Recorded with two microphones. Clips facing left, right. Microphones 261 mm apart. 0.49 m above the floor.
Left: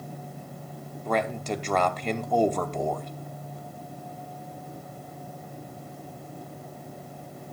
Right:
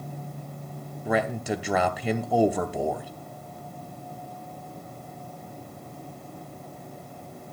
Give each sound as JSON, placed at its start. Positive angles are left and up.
{"t": 1.1, "sound": "a man speaking", "side_deg": -10, "distance_m": 0.9}